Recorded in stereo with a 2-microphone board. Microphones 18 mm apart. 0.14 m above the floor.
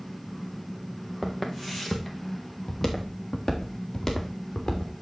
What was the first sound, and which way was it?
Footsteps, 10° right (ahead or behind).